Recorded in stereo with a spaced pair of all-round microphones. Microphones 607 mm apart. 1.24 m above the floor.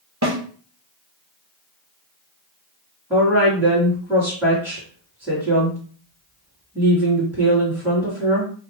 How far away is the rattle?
No rattle in this recording.